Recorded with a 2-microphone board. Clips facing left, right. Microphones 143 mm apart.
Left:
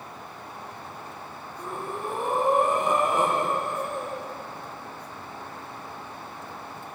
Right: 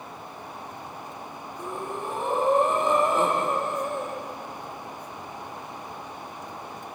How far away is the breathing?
About 6 m.